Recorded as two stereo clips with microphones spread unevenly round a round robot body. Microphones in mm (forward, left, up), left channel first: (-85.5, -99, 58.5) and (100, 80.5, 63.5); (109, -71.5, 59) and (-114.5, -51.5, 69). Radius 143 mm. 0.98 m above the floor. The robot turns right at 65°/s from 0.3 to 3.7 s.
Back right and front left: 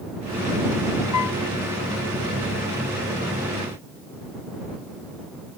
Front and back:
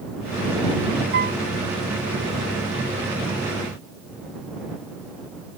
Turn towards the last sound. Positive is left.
turn(degrees=15)